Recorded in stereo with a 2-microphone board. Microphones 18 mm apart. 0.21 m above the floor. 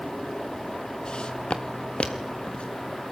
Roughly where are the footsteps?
Left.